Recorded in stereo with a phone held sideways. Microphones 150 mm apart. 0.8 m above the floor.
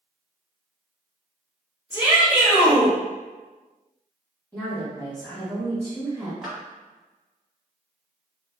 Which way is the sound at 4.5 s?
15° left (ahead or behind).